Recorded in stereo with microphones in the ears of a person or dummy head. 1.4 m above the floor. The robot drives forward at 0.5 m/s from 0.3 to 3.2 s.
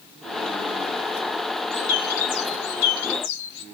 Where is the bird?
55° left (ahead or behind), 3.5 m; by 3.6 s 65° left (ahead or behind), 3.5 m.